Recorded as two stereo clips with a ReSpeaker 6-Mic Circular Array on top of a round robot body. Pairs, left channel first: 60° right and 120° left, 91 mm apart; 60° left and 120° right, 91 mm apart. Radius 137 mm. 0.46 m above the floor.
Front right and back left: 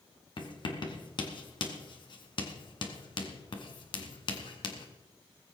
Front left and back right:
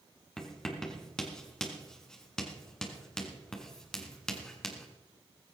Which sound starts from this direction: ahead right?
Writing, at 0.4 s.